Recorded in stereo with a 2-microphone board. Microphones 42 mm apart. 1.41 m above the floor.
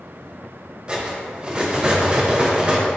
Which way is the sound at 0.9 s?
20° right (ahead or behind).